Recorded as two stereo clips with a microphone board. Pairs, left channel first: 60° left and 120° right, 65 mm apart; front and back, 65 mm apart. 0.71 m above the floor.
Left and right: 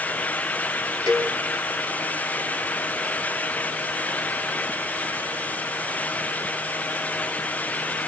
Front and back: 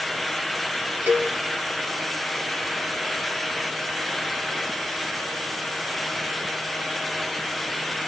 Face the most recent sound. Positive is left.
turn(degrees=-125)